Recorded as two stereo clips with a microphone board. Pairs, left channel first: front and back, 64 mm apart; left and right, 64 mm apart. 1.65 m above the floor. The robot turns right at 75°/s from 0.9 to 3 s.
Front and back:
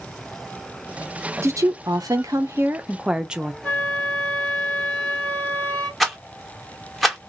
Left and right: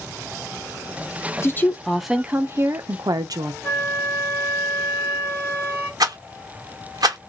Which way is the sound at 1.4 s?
135° left.